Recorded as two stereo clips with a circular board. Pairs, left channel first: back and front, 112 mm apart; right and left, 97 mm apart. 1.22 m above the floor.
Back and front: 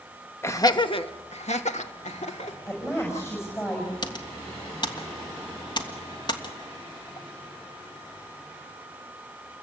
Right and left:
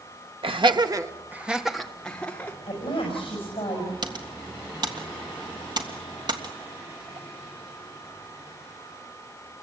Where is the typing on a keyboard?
130° left, 1.8 m.